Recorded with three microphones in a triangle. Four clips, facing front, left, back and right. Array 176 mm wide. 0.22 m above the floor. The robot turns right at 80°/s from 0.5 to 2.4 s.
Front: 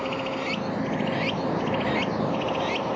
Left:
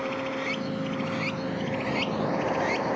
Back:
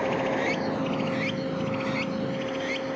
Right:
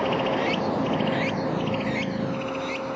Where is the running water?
110° right; by 3.0 s 45° left.